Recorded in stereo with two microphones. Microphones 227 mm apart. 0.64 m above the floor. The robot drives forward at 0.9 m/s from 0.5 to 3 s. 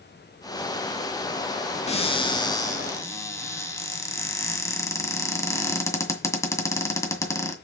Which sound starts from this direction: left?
A cupboard door, at 1.9 s.